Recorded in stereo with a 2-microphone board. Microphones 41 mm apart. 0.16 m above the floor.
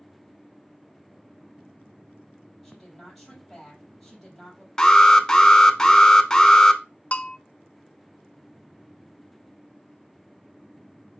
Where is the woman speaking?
5° left (ahead or behind), 4.5 m.